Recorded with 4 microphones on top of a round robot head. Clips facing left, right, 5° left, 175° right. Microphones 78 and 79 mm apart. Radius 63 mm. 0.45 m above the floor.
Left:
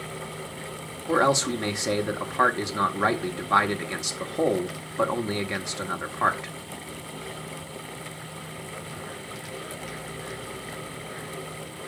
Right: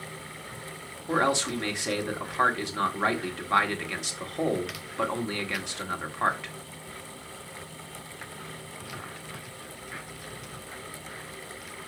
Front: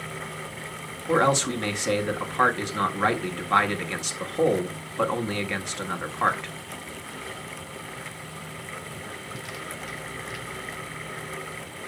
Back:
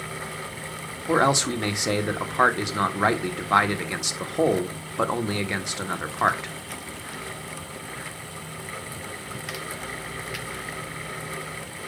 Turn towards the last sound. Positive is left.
turn(degrees=130)